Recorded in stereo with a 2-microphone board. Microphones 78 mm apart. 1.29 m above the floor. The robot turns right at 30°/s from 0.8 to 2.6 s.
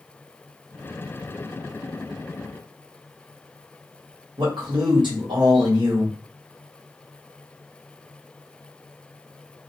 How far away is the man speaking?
About 1.3 m.